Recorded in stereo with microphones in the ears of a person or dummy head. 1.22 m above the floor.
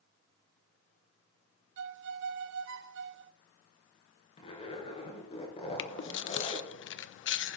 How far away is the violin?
About 0.8 m.